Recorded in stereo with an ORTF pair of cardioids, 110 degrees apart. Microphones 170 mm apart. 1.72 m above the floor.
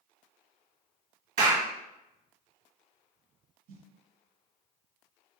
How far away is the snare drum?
About 0.9 m.